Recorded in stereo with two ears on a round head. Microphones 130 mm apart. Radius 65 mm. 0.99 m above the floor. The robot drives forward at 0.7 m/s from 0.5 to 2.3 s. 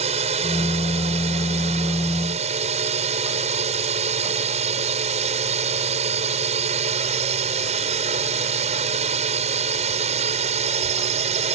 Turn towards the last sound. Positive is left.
turn(degrees=-45)  # may be behind; listen again after turning